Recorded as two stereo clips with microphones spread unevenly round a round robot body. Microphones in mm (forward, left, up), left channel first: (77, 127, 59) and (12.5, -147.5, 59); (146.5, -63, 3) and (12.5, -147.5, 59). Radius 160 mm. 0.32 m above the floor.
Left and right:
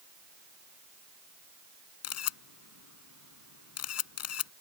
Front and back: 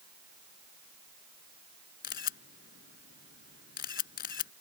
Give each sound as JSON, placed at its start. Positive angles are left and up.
{"t": 2.0, "sound": "a camera shutter", "azimuth_deg": 45}